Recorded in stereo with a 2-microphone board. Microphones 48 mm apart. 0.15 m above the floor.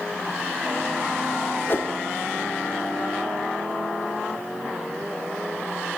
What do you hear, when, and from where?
1.7 s a whoosh: 50° left (ahead or behind), 0.7 m